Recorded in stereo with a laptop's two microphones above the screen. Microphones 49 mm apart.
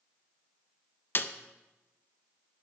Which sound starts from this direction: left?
A snare drum, at 1.1 s.